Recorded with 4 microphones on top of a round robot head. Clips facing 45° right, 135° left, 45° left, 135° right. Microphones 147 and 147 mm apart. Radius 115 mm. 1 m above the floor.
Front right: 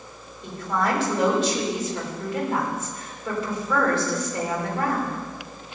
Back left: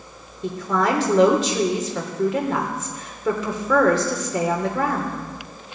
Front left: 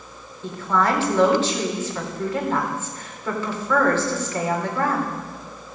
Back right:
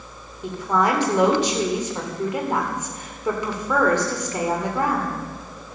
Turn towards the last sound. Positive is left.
turn(degrees=145)